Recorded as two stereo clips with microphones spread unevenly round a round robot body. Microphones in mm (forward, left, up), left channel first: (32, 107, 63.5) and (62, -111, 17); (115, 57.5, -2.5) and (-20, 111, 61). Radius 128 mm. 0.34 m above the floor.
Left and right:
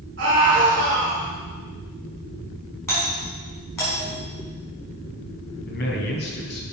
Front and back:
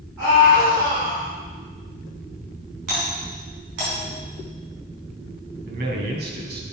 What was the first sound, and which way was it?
A scream, 120° right.